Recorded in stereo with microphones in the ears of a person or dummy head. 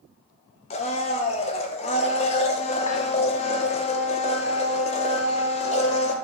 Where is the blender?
30° left (ahead or behind), 0.7 m.